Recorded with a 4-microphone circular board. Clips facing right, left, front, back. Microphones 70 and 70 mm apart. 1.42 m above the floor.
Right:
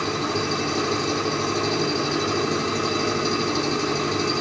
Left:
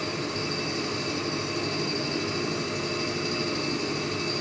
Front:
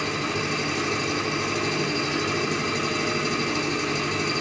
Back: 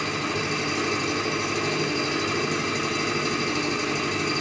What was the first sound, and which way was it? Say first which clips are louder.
An engine running: right 6 dB, even; 90° right.